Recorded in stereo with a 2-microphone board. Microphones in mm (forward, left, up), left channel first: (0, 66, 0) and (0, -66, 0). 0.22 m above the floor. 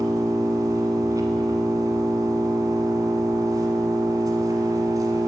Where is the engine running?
30° right (ahead or behind), 1.0 m.